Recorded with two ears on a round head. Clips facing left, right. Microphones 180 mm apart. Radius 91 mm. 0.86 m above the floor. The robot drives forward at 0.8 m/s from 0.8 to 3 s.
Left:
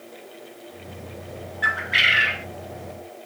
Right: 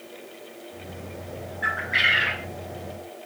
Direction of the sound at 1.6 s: 55° left (ahead or behind).